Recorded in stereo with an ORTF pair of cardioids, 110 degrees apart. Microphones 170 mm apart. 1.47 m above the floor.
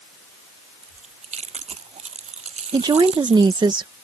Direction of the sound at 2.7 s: 25° right.